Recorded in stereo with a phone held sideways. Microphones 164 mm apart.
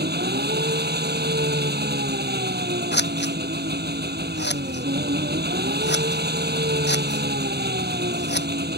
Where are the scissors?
85° left.